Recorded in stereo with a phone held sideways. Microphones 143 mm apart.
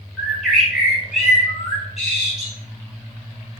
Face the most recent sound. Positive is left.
turn(degrees=0)  # may be behind; listen again after turning